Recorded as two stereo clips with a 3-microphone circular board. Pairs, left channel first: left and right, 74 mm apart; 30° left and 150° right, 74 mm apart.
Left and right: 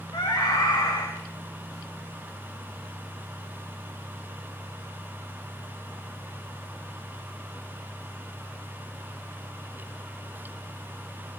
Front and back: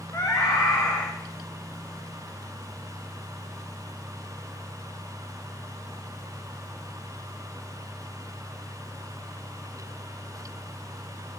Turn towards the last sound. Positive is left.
turn(degrees=80)